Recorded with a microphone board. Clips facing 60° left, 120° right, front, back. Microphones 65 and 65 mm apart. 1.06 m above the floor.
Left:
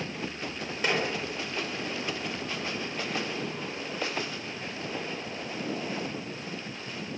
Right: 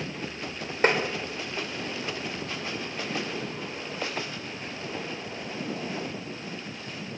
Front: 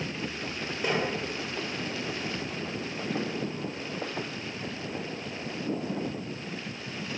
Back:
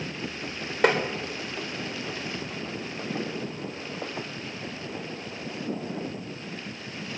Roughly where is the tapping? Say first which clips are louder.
Right 5 dB, back 7 dB; behind.